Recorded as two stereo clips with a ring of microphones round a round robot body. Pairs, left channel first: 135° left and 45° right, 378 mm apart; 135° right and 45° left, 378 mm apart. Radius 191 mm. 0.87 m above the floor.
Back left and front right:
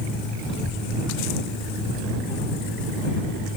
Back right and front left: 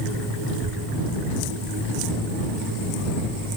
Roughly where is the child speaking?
Ahead left.